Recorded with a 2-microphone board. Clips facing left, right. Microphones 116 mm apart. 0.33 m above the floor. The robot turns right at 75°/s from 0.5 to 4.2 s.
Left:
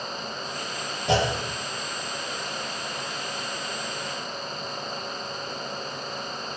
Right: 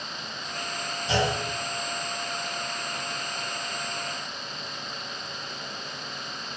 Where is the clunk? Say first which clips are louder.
Left 3 dB; 70° left (ahead or behind), 6 m; by 1.3 s 55° left (ahead or behind), 6 m.